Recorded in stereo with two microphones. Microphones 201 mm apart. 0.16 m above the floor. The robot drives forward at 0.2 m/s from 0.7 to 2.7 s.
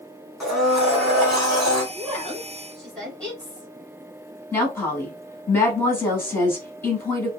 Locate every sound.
0.4 s a blender: centre (ahead or behind), 1.5 m
1.9 s a woman speaking: 5° left (ahead or behind), 1.6 m
4.5 s a woman speaking: 10° left (ahead or behind), 1.1 m